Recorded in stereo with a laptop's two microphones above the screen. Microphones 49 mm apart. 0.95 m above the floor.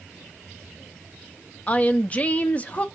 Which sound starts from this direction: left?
A woman speaking, at 1.7 s.